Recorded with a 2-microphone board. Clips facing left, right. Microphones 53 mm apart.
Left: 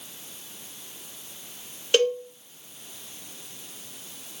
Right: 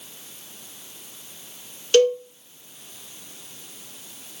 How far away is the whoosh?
I don't hear a whoosh.